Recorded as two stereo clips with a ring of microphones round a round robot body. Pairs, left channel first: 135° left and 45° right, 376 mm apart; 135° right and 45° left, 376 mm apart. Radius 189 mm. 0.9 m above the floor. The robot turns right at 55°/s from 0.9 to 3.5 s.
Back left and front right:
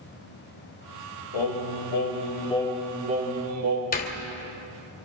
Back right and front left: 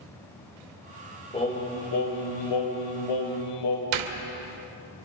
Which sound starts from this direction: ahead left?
A door slam, at 3.9 s.